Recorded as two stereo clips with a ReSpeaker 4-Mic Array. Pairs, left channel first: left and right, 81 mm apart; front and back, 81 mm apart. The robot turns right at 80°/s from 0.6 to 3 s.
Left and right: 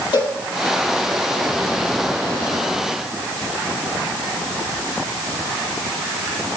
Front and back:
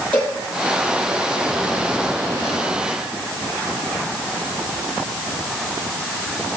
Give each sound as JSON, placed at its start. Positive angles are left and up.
{"t": 0.1, "sound": "a cowbell", "azimuth_deg": 75, "distance_m": 6.0}